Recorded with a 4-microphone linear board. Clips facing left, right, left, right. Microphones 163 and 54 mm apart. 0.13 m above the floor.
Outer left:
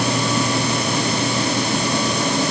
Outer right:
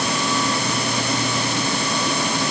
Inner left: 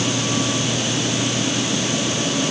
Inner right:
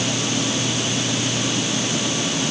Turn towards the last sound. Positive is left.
No sound to turn to.